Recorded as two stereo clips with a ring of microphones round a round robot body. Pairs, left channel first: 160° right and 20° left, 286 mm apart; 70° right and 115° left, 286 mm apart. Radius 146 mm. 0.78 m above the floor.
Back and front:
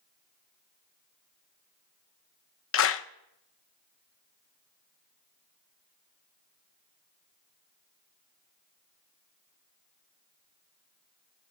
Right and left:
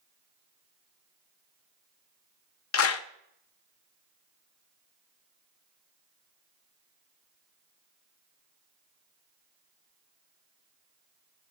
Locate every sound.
2.7 s a clap: 110° right, 0.7 m